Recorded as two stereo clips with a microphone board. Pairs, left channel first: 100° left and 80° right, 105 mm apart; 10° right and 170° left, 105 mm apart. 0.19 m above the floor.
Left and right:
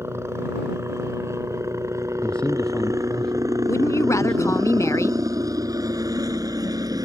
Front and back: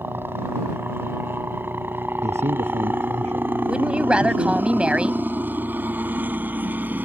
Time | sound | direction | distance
0.0 | a helicopter | 130° right | ?
2.2 | a man speaking | straight behind | ?
3.7 | a woman speaking | 100° left | ?